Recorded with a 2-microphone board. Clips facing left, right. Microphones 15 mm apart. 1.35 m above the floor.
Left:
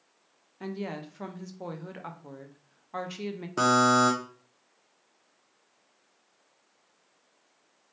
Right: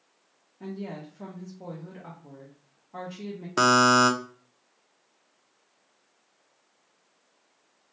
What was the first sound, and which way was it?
A woman speaking, 60° left (ahead or behind).